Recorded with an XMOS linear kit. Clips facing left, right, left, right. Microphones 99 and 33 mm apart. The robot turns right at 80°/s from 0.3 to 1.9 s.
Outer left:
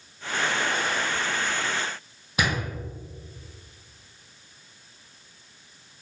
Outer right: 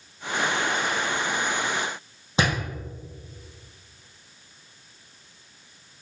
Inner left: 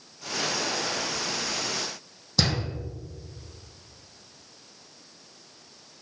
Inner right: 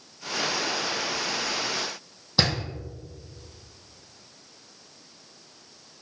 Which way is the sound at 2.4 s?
30° right (ahead or behind).